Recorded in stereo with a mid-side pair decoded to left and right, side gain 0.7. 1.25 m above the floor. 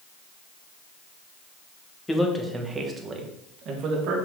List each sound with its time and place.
2.1 s a man speaking: 10° left, 1.5 m; by 4.2 s 60° right, 1.8 m